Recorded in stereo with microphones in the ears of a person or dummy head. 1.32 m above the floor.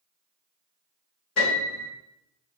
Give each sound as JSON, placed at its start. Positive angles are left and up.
{"t": 1.4, "sound": "a piano", "side_deg": 50, "distance_m": 1.8}